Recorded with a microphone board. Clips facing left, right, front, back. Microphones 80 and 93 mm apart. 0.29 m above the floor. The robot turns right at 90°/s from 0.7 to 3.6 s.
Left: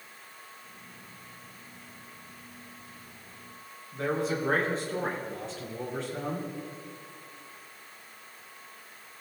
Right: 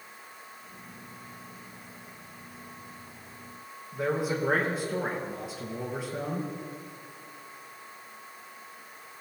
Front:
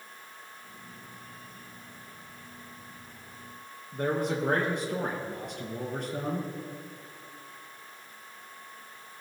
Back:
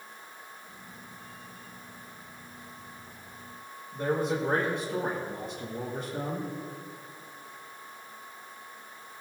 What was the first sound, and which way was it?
A man speaking, 10° right.